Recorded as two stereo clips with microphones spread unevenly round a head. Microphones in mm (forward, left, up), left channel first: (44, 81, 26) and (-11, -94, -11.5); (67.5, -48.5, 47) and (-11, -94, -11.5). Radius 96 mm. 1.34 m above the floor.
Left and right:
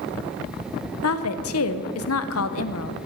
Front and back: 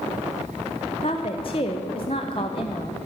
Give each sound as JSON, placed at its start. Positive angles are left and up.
{"t": 1.0, "sound": "a woman speaking", "azimuth_deg": 90, "distance_m": 0.7}